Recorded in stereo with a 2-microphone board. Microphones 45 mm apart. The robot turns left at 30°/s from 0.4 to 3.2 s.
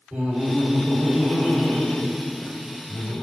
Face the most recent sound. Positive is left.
turn(degrees=135)